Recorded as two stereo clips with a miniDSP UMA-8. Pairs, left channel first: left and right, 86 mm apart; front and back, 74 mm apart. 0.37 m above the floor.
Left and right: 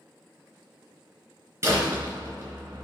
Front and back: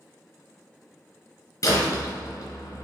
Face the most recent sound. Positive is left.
turn(degrees=-30)